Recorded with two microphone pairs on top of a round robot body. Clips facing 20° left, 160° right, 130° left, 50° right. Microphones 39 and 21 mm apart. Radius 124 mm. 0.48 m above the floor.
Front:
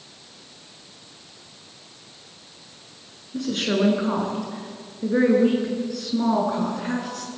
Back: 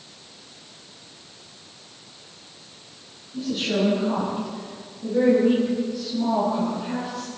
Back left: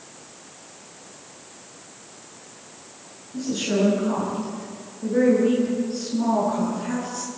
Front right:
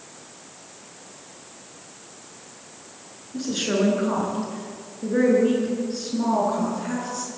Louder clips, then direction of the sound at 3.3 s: Front 1 dB, even; 10° left.